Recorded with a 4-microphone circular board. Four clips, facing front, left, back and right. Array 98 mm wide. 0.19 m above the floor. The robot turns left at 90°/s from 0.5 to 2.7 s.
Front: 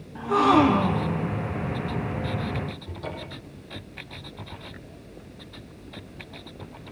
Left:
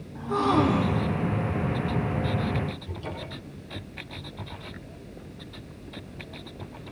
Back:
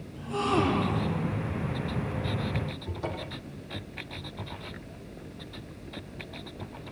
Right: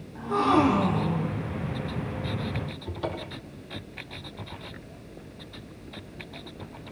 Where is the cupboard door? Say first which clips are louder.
Right 3 dB, back 1 dB; 105° right, 6 m.